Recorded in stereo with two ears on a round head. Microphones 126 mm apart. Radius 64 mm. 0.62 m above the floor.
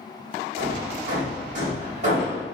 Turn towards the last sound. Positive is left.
turn(degrees=-55)  # may be behind; listen again after turning